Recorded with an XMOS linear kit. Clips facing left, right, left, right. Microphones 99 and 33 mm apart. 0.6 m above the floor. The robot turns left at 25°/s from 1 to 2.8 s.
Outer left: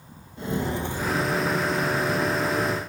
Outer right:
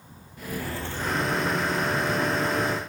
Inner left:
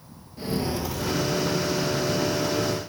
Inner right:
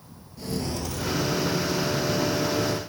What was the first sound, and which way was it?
Footsteps, 25° left (ahead or behind).